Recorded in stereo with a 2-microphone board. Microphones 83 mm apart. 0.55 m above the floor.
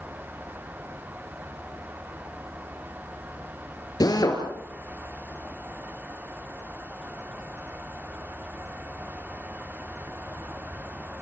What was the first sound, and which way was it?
A drill, 50° left (ahead or behind).